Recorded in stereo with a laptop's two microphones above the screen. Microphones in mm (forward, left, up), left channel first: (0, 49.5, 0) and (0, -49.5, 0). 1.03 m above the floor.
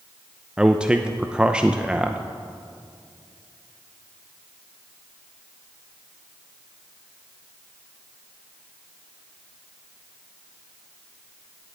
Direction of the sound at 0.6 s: 10° right (ahead or behind).